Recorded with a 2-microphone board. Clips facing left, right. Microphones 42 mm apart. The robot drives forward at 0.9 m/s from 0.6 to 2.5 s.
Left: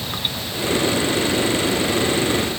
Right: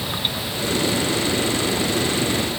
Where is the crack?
No crack in this recording.